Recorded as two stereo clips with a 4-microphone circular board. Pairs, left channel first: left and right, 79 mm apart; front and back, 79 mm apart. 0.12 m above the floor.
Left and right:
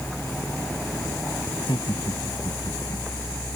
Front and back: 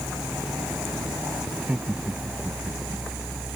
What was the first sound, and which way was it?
Laughter, 105° left.